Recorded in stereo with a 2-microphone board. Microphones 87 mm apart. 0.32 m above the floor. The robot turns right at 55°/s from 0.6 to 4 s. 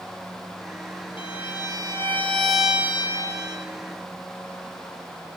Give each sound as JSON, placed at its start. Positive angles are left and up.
{"t": 1.2, "sound": "a violin", "azimuth_deg": 105, "distance_m": 3.0}